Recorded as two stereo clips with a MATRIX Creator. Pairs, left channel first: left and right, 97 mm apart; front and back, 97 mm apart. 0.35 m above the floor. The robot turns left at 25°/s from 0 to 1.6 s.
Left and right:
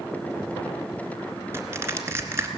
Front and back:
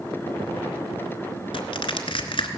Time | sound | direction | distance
1.5 | crushing | 30° right | 1.2 m